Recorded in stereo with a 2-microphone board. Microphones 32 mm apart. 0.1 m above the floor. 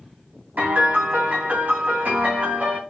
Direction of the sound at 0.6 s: 80° right.